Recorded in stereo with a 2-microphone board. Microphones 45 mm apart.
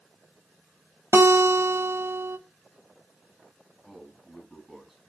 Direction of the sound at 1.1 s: 75° right (ahead or behind).